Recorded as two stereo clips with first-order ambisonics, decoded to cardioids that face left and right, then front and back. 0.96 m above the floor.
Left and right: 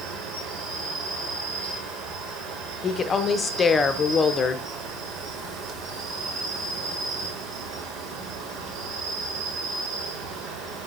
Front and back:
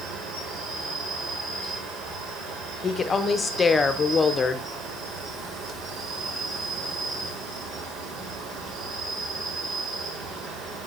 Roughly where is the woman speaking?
Ahead left.